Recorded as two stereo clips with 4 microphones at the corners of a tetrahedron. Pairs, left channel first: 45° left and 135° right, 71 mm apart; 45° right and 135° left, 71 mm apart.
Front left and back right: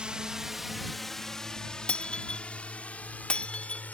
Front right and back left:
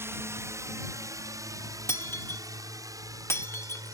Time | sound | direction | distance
0.0 | a drone | 155° left | ?
1.9 | breaking glass | 20° right | ?